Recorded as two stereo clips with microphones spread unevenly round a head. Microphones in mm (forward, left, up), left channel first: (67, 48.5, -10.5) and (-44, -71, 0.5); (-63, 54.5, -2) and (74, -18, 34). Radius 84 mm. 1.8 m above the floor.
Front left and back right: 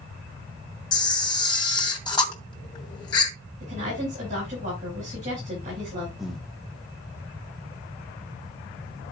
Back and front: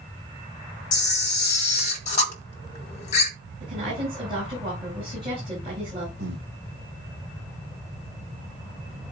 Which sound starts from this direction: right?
A woman speaking, at 3.6 s.